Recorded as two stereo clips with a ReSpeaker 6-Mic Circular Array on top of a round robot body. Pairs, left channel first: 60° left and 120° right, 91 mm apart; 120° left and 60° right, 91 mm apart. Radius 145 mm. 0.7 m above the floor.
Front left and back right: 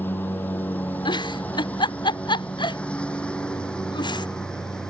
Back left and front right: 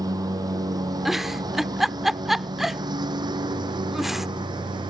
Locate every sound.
0.0 s a lawn mower: 10° right; by 4.9 s 25° right
1.1 s a giggle: 25° left